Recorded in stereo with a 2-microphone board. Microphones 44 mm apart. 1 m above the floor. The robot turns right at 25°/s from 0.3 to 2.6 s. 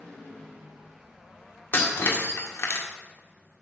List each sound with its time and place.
1.7 s breaking glass: 50° left (ahead or behind), 1.7 m; by 2.9 s 70° left (ahead or behind), 1.7 m